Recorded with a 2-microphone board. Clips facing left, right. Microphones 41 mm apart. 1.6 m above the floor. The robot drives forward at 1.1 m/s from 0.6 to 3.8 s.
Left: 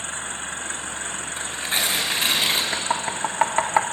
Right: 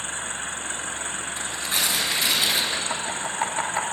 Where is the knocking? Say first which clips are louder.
Left 3 dB; 55° left (ahead or behind), 2.5 m; by 3.8 s 80° left, 1.9 m.